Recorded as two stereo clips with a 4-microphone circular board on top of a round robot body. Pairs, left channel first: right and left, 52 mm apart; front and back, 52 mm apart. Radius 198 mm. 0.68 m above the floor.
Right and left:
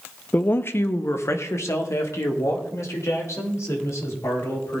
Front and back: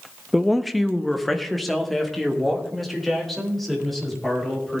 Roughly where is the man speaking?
Right.